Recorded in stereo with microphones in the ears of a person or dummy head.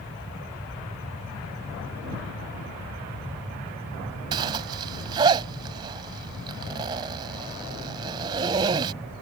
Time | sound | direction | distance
4.3 | a zipper | 25° right (ahead or behind) | ?